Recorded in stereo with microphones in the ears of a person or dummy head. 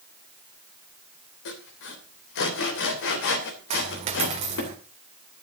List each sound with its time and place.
1.4 s sawing: 65° left (ahead or behind), 3 m
3.7 s a dropped coin: 40° right (ahead or behind), 2 m